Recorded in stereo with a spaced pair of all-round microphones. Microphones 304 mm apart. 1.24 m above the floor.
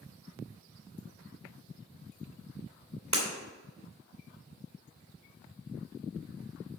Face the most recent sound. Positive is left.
turn(degrees=-65)  # may be behind; listen again after turning